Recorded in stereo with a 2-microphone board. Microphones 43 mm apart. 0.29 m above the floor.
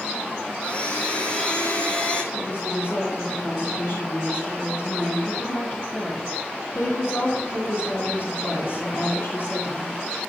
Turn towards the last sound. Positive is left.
turn(degrees=65)  # may be behind; listen again after turning